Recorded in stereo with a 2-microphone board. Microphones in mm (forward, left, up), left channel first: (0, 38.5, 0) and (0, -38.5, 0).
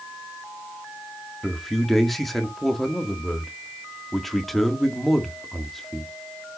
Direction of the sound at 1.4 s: Centre (ahead or behind).